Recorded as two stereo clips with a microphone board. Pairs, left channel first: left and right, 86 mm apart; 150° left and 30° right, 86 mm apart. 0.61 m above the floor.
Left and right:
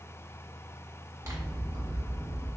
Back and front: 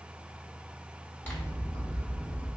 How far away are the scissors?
About 1.1 m.